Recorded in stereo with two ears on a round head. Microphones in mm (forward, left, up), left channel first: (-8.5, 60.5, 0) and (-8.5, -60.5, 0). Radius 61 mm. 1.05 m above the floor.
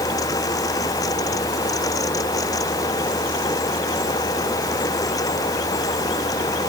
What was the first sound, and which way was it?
Only background noise.